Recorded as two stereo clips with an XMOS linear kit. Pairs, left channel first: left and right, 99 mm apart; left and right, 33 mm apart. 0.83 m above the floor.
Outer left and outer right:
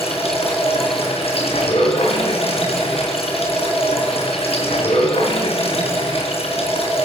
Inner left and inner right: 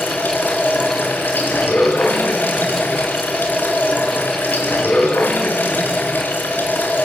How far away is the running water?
About 5.5 m.